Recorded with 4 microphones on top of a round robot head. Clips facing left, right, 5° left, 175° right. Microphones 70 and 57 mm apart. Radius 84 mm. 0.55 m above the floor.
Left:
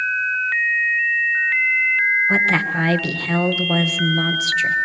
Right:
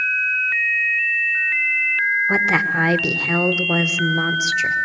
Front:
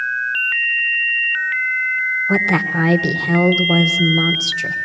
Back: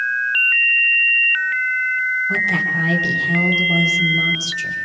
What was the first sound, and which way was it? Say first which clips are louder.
A woman speaking: even, front 1 dB; 15° right.